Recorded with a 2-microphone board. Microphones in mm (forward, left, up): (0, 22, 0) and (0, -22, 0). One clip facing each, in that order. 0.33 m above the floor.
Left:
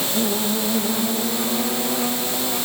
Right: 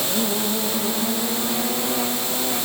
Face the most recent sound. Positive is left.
No sound to turn to.